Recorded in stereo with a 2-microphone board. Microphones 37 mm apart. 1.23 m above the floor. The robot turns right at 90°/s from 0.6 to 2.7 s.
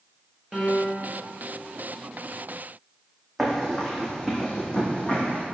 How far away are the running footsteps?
About 2.5 m.